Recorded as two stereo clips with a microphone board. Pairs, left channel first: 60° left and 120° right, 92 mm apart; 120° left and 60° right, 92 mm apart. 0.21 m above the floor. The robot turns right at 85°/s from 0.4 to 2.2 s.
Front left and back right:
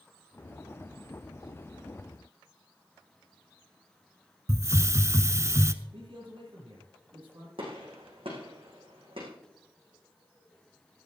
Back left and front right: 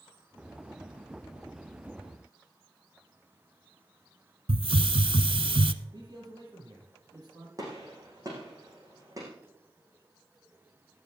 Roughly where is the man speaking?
Right.